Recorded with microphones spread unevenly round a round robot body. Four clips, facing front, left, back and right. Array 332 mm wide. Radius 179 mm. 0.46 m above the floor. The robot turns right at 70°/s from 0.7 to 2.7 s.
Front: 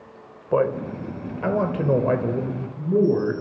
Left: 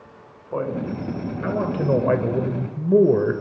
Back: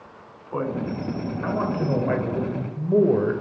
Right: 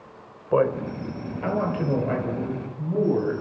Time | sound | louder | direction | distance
0.5 | a man speaking | right 4 dB, front 5 dB | 40° right | 3 m